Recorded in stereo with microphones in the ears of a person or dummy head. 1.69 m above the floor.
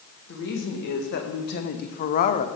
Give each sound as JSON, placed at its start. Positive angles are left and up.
{"t": 0.3, "sound": "a woman speaking", "side_deg": 60, "distance_m": 2.5}